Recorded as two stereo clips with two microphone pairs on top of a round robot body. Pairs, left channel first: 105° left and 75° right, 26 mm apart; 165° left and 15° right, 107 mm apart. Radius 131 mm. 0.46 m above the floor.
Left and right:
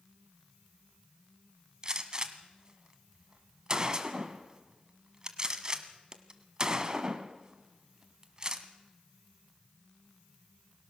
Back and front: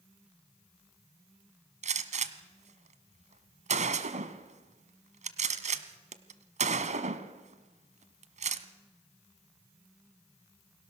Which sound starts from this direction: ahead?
A gunshot, at 1.8 s.